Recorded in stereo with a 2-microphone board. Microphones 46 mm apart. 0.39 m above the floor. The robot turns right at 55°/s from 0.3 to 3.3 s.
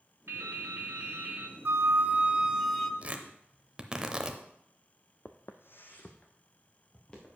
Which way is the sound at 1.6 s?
60° right.